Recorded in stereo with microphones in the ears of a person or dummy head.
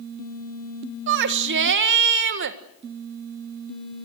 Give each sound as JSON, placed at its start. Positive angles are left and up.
{"t": 1.1, "sound": "a shout", "side_deg": -55, "distance_m": 1.5}